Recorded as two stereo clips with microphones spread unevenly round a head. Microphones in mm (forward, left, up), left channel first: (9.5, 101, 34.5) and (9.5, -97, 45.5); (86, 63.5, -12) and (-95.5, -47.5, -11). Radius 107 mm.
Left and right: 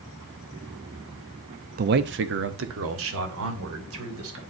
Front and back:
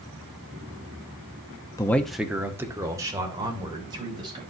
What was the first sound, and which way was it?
A man speaking, 45° right.